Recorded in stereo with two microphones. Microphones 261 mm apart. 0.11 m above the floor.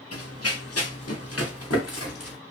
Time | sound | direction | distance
0.1 | running footsteps | 70° left (ahead or behind) | 0.9 m